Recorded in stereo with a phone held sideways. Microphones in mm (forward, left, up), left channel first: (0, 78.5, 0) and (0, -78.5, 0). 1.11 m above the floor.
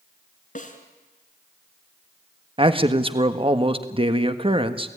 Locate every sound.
0.6 s a snare drum: 55° left (ahead or behind), 3 m
2.6 s a man speaking: 35° right (ahead or behind), 1.4 m